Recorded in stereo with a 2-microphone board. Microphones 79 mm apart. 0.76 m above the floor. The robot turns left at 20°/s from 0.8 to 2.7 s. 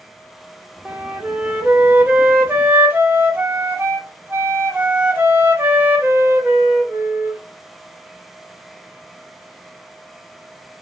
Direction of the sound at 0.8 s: 15° right (ahead or behind).